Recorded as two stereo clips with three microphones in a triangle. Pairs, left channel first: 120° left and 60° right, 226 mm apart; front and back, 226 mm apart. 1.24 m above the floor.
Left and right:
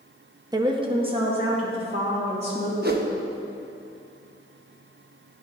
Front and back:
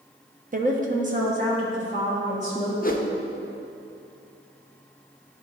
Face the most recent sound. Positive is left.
turn(degrees=-35)